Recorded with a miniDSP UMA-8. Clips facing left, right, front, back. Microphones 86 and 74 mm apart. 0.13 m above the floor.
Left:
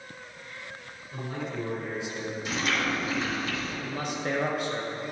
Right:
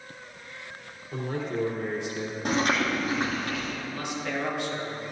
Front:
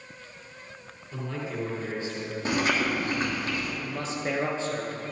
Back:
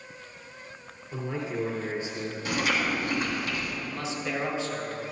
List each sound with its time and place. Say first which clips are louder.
1.1 s a man speaking: right 4 dB, back 2 dB; 115° right, 3.5 m
2.5 s chewing: right 4 dB, front 2 dB; 55° right, 3 m
3.8 s a man speaking: left 1 dB, front 2 dB; 45° left, 2.5 m